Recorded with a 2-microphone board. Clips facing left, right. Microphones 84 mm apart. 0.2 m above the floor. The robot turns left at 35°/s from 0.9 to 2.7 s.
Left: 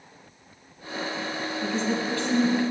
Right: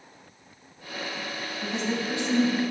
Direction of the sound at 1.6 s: 15° right (ahead or behind).